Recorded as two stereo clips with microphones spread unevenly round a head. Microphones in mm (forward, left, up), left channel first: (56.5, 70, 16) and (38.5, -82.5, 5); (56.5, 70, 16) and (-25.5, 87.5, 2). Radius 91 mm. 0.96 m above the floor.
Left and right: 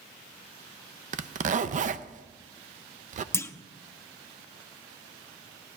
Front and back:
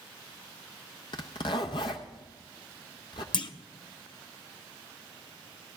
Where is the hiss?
No hiss in this recording.